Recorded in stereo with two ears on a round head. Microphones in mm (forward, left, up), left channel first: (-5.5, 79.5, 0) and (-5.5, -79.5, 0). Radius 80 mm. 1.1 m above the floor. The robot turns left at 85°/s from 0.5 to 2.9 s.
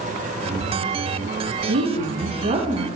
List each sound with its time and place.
1.7 s a woman speaking: 65° right, 0.9 m; by 2.9 s 165° right, 0.9 m